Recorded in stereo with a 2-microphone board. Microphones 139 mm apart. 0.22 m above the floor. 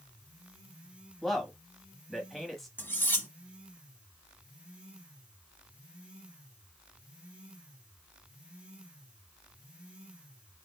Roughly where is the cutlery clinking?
Centre.